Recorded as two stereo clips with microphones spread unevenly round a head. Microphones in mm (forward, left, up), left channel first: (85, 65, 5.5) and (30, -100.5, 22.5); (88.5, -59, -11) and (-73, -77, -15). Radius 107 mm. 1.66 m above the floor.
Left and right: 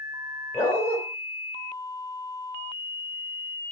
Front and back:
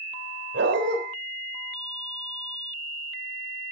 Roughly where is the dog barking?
Behind left.